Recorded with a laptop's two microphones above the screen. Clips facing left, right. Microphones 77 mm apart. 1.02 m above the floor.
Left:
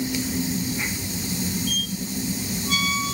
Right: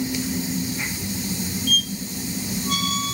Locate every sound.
1.7 s a squeak: 60° right (ahead or behind), 1.4 m